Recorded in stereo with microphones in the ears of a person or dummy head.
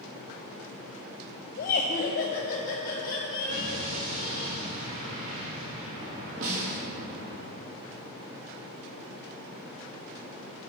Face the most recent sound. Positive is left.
turn(degrees=-45)  # may be behind; listen again after turning